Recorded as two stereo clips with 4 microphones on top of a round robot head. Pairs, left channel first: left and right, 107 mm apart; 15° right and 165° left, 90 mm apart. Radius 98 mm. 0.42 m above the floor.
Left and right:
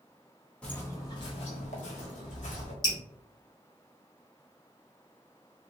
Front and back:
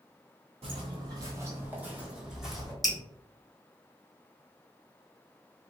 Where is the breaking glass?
No breaking glass in this recording.